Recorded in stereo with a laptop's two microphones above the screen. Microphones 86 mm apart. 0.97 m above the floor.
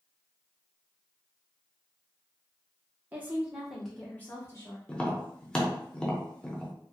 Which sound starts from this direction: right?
A woman speaking, at 3.1 s.